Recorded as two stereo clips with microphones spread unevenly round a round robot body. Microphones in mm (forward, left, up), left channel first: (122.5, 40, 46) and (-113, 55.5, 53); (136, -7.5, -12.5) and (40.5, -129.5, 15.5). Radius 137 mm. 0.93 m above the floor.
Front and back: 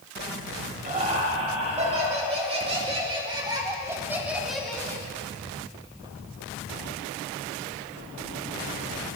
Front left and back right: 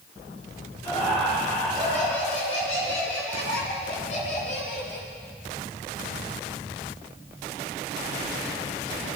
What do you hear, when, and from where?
0.8 s laughter: 120° left, 4 m; by 5.1 s 70° left, 1.3 m